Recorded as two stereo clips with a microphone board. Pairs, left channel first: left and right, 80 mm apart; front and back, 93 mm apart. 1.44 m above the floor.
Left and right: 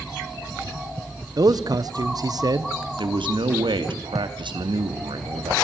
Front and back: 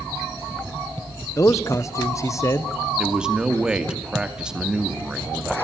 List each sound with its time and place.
1.4 s a man speaking: 55° right, 1.2 m
3.0 s a man speaking: 100° right, 2.5 m